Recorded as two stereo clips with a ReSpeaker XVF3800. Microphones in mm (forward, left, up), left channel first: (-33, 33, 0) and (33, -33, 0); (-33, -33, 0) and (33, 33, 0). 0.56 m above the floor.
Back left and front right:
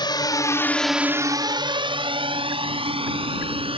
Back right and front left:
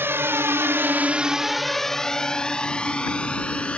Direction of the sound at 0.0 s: 110° left.